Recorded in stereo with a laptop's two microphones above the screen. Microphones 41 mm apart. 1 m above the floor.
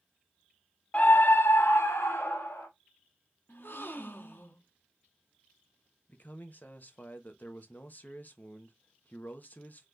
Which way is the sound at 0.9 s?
30° left (ahead or behind).